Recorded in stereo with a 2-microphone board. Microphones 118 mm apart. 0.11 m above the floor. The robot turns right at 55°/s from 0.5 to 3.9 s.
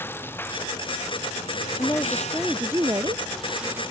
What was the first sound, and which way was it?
A lawn mower, 20° left.